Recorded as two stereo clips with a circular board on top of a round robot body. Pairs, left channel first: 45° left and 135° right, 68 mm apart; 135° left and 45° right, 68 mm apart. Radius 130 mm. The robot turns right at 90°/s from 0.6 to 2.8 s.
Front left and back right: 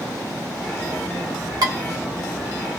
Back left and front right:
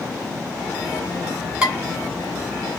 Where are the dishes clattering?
125° right, 2.5 m; by 1.8 s 110° right, 2.5 m.